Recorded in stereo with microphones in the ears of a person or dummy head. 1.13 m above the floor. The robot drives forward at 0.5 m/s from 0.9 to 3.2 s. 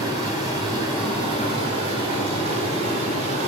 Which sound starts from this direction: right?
Running water, at 0.0 s.